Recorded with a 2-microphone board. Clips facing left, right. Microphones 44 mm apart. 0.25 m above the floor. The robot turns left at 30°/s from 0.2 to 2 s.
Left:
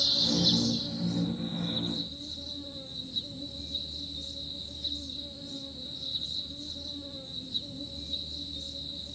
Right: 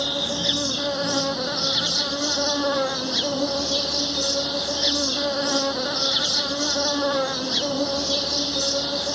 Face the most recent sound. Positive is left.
turn(degrees=-100)